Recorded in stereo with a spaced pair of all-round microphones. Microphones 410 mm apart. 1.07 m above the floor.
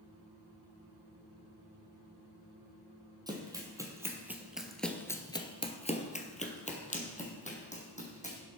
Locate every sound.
3.3 s running footsteps: 10° right (ahead or behind), 2.5 m; by 8.4 s 15° left (ahead or behind), 3.5 m